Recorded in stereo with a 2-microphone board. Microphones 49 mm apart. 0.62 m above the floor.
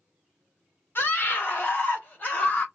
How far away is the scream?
About 1.9 m.